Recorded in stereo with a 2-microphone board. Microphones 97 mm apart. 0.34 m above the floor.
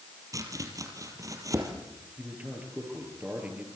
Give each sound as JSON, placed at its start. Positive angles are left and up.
{"t": 0.3, "sound": "chopping", "side_deg": -40, "distance_m": 4.5}
{"t": 2.2, "sound": "a man speaking", "side_deg": -15, "distance_m": 8.0}